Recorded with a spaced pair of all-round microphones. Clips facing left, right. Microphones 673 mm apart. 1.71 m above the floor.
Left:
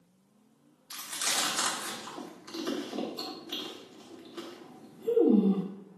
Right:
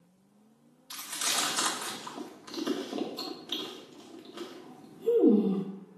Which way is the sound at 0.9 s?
60° right (ahead or behind).